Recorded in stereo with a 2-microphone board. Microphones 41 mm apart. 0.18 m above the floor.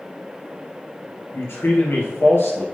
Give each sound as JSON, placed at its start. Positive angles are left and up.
{"t": 1.3, "sound": "a man speaking", "side_deg": 65, "distance_m": 4.0}